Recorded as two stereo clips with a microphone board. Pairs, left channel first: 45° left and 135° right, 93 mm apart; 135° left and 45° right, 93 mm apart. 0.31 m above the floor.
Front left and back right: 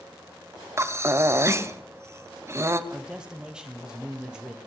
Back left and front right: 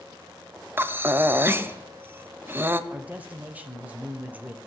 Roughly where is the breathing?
Right.